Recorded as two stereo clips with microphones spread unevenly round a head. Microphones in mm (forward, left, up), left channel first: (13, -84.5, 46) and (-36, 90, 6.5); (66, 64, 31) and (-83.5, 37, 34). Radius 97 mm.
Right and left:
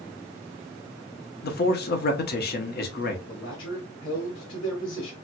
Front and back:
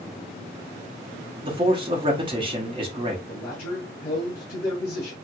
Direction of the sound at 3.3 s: 55° right.